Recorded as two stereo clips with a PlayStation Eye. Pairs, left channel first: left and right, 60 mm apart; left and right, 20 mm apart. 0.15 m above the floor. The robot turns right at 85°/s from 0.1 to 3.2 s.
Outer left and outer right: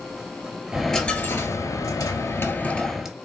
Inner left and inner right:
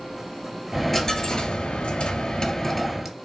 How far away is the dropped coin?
About 0.5 m.